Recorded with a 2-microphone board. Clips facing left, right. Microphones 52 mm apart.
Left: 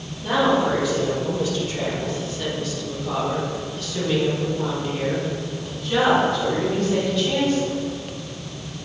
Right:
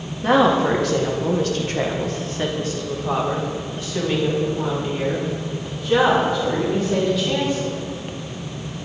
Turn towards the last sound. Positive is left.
turn(degrees=-5)  # may be behind; listen again after turning